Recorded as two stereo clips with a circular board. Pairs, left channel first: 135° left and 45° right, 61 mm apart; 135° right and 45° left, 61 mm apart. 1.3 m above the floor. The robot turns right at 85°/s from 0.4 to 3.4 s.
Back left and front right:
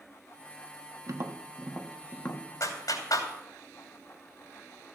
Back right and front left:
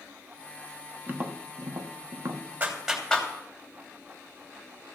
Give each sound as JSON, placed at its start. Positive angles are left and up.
{"t": 1.1, "sound": "tapping", "azimuth_deg": -20, "distance_m": 1.2}
{"t": 2.6, "sound": "a clap", "azimuth_deg": 105, "distance_m": 3.0}